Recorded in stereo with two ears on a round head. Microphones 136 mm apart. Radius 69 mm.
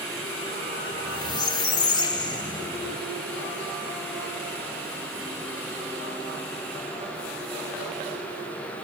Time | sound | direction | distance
0.9 | a squeak | 30° left (ahead or behind) | 1.1 m